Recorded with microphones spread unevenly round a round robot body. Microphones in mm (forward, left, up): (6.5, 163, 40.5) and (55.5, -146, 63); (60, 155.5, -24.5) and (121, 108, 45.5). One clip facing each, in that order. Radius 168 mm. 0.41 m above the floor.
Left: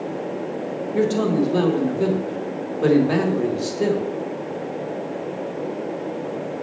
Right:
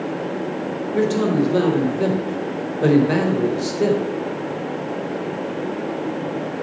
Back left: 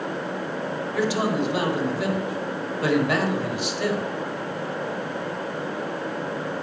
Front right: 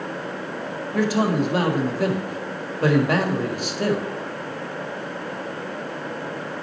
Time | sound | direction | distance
0.9 | a man speaking | 15° left | 1.7 m